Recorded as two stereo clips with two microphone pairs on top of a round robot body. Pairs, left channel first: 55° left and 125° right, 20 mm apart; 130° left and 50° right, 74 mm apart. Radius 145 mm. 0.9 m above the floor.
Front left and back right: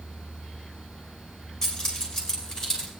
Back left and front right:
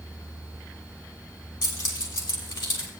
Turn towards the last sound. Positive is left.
turn(degrees=135)